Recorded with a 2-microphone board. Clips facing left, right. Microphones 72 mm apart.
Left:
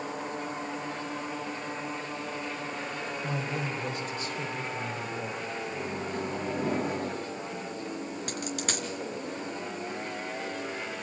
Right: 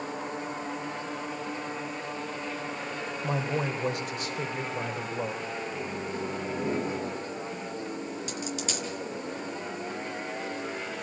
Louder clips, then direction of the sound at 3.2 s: Right 5 dB; 70° right (ahead or behind).